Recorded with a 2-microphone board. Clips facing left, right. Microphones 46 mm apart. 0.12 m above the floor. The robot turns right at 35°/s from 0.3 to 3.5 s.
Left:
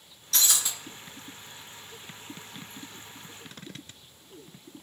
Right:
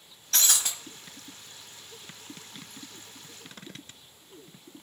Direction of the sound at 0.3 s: 40° right (ahead or behind).